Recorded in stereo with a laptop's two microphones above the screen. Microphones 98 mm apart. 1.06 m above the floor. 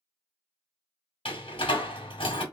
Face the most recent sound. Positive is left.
turn(degrees=65)  # may be behind; listen again after turning